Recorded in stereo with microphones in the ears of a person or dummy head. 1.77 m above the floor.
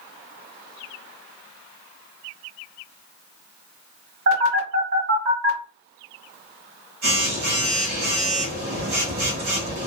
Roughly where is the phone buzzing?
Right.